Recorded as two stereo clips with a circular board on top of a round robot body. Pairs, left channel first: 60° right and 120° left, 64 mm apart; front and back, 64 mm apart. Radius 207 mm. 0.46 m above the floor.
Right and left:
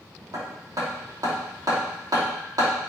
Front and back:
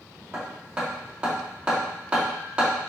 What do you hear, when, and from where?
0.3 s hammering: 105° left, 2.5 m